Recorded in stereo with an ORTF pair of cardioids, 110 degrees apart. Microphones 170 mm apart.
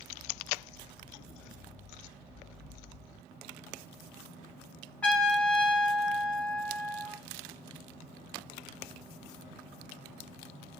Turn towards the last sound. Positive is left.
turn(degrees=5)